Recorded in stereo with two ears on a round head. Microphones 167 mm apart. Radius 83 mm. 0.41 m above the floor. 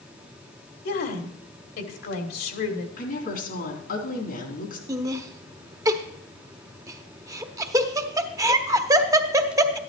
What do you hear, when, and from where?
0.8 s a woman speaking: 55° left (ahead or behind), 1.9 m
3.0 s a woman speaking: 50° left (ahead or behind), 3.5 m
4.9 s laughter: 15° right (ahead or behind), 0.8 m